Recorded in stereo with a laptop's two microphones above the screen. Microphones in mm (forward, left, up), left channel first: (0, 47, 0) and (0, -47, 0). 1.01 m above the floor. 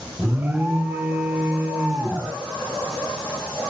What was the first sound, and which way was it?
An alarm, 20° right (ahead or behind).